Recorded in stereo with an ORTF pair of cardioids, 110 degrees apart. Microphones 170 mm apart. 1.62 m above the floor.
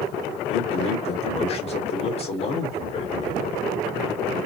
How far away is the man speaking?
About 1.6 m.